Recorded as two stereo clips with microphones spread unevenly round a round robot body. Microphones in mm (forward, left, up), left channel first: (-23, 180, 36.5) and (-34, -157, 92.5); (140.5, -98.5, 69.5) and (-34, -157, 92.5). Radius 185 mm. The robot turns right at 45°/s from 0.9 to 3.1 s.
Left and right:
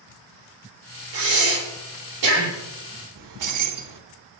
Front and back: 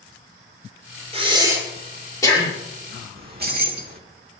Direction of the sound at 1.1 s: 105° right.